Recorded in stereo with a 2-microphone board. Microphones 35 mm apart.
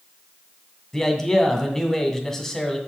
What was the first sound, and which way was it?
A man speaking, 10° left (ahead or behind).